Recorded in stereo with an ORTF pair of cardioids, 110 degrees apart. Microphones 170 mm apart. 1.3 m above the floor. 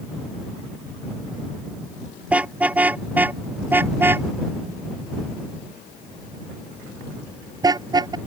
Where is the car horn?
10° right; by 8.2 s 25° right.